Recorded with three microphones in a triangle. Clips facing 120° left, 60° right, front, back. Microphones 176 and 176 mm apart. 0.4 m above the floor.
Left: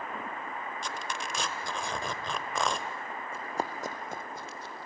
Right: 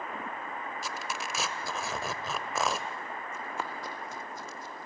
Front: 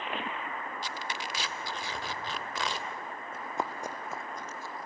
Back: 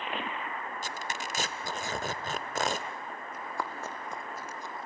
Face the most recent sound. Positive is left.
turn(degrees=120)